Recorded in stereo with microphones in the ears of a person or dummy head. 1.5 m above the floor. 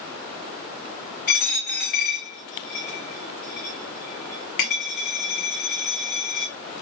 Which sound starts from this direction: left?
A dropped coin, at 1.3 s.